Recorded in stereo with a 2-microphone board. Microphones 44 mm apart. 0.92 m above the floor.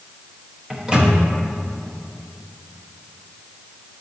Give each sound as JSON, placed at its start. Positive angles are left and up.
{"t": 0.7, "sound": "a microwave", "side_deg": -15, "distance_m": 0.8}